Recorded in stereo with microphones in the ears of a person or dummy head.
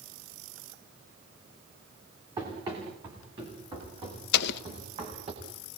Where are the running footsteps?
25° right (ahead or behind), 8.5 m; by 5.3 s 35° right (ahead or behind), 8.5 m.